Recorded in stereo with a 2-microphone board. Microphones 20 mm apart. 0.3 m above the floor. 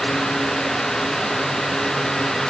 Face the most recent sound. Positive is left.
No sound to turn to.